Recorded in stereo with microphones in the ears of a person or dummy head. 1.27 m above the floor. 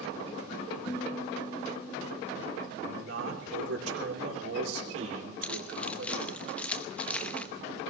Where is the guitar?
15° left (ahead or behind), 1.2 m.